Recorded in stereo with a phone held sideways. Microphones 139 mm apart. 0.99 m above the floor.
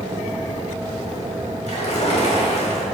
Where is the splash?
60° left (ahead or behind), 3 m.